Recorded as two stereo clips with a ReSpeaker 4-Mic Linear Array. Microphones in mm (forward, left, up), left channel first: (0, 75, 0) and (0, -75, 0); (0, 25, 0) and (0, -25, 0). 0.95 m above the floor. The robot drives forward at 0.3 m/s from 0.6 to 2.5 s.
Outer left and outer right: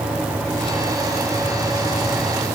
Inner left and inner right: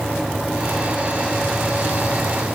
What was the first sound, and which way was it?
Only background noise.